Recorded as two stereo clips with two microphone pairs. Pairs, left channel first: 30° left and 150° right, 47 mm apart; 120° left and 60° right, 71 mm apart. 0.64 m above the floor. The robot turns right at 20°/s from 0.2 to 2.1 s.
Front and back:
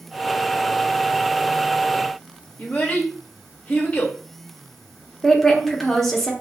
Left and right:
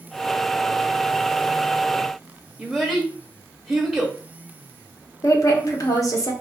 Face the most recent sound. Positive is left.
turn(degrees=115)